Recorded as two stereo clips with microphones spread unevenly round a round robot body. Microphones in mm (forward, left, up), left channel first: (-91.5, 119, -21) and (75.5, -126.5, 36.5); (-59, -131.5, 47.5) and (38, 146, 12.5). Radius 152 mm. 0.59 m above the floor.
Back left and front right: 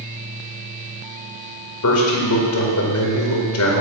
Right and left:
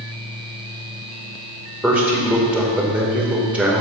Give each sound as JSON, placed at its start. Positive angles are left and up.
{"t": 1.8, "sound": "a man speaking", "azimuth_deg": 155, "distance_m": 2.0}